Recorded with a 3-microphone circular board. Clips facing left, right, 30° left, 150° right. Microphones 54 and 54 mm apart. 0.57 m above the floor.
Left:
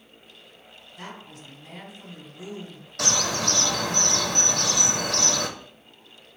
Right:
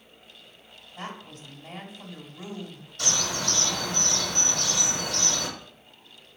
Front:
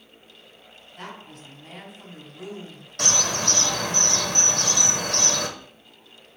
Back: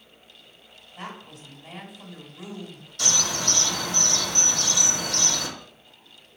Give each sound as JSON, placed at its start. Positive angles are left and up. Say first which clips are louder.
{"t": 1.0, "sound": "a woman speaking", "louder": "right 2 dB, back 1 dB", "azimuth_deg": -70, "distance_m": 1.2}
{"t": 3.0, "sound": "a bird", "louder": "left 4 dB, front 2 dB", "azimuth_deg": 75, "distance_m": 0.5}